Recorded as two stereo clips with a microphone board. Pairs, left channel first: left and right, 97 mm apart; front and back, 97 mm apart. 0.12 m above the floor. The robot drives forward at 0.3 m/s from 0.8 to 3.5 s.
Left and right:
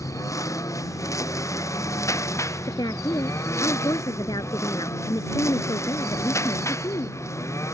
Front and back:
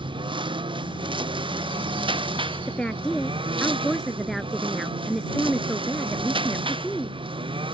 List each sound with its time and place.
0.0 s a lawn mower: 145° left; by 7.8 s 150° left
2.7 s a woman speaking: 75° left; by 7.2 s 85° left